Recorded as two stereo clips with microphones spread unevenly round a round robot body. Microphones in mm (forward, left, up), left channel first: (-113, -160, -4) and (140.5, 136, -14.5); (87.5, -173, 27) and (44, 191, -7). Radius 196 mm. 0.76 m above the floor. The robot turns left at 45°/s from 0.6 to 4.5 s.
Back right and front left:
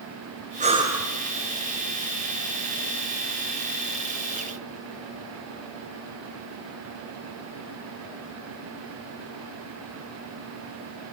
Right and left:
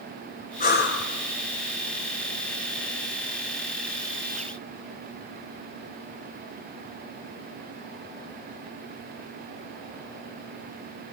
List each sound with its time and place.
0.6 s breathing: 20° right, 1.6 m; by 1.1 s 40° right, 1.6 m